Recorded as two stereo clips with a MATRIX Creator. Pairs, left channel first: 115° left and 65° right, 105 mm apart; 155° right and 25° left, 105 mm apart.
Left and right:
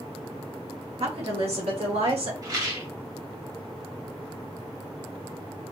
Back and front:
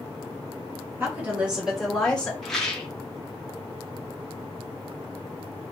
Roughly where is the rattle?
Right.